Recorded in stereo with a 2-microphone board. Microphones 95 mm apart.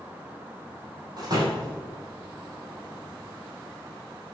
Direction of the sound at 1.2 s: 45° right (ahead or behind).